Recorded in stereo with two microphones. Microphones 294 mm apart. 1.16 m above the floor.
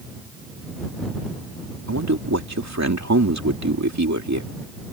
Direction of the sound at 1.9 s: 75° right (ahead or behind).